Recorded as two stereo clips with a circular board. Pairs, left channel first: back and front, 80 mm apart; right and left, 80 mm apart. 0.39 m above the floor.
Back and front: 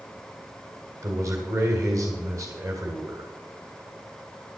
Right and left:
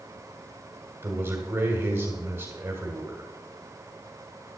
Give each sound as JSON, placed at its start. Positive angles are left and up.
{"t": 1.0, "sound": "a man speaking", "azimuth_deg": 35, "distance_m": 2.5}